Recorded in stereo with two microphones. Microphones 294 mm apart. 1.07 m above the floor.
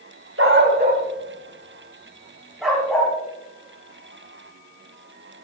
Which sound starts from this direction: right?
A dog barking, at 0.4 s.